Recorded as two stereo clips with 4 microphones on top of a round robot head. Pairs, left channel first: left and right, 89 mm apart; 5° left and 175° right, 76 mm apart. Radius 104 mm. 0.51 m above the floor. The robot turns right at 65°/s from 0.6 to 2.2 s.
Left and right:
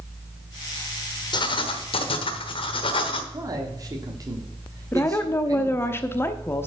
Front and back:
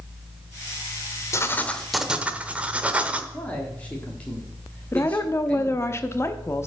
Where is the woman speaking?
40° left, 0.9 m.